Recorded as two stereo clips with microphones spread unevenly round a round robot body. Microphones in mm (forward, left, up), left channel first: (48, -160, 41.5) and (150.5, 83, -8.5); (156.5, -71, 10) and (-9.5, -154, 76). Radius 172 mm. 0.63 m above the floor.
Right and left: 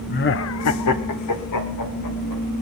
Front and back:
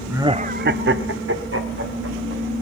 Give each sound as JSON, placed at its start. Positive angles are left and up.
{"t": 0.1, "sound": "laughter", "azimuth_deg": -55, "distance_m": 0.8}